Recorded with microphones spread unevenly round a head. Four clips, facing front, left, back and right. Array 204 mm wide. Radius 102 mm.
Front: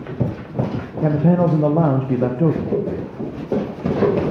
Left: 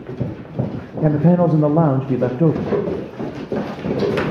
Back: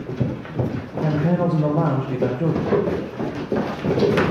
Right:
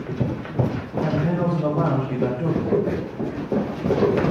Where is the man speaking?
65° left, 0.6 m.